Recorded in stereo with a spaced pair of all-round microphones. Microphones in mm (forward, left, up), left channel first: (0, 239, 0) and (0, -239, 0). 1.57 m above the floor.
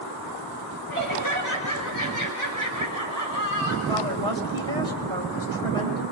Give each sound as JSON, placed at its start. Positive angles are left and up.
{"t": 0.9, "sound": "laughter", "side_deg": -40, "distance_m": 6.0}
{"t": 3.9, "sound": "a woman speaking", "side_deg": -75, "distance_m": 3.5}